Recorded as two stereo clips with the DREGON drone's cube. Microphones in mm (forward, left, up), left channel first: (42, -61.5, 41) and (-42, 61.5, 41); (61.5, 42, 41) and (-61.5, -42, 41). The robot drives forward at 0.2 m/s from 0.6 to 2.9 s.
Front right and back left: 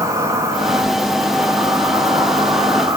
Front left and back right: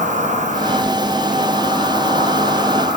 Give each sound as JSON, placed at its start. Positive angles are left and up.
{"t": 0.0, "sound": "an insect", "azimuth_deg": -165, "distance_m": 4.0}